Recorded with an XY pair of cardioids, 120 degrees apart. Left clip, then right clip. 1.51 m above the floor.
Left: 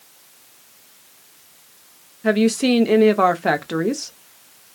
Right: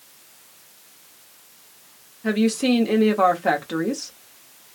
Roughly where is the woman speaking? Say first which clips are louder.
Left 4 dB; ahead left.